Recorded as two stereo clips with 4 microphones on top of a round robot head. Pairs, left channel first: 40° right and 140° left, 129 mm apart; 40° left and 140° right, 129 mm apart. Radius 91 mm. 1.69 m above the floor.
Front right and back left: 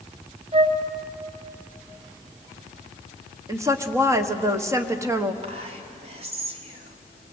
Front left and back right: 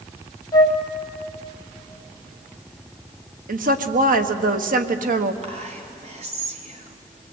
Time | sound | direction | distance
0.5 | a flute | 100° left | 3 m
3.5 | a woman speaking | 150° right | 1.4 m
5.4 | whispering | straight behind | 3.5 m